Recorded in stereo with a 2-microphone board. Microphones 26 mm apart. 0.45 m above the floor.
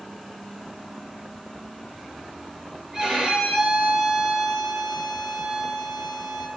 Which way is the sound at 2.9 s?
20° right (ahead or behind).